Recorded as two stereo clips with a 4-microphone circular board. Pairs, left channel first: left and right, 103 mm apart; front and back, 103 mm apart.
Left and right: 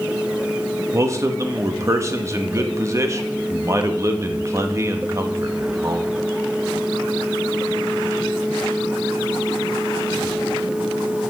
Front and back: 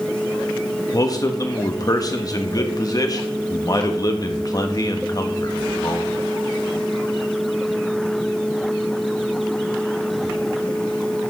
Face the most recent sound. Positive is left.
turn(degrees=-40)